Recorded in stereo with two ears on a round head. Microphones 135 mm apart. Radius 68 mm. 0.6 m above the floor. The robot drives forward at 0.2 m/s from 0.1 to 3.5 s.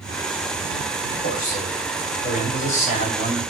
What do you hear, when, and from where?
1.2 s a man speaking: 65° left (ahead or behind), 2.5 m; by 3.4 s 55° left (ahead or behind), 3 m